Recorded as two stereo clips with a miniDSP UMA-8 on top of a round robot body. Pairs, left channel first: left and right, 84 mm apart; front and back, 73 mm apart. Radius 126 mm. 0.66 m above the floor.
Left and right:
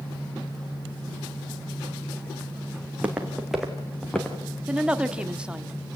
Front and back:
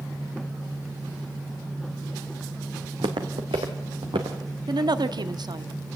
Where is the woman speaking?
170° right, 1.4 m.